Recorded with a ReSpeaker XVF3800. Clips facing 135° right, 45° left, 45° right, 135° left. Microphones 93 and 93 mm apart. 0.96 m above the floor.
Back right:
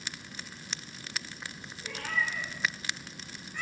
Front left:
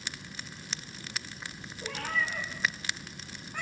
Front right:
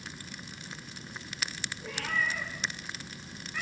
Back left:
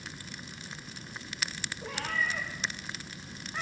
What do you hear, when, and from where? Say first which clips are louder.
1.8 s a cat meowing: front left 1 dB, front right 1 dB; 90° left, 9.5 m; by 3.6 s 75° left, 7.5 m